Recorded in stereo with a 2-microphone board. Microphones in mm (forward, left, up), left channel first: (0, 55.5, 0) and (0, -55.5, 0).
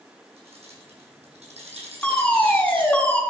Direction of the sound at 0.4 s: 65° right (ahead or behind).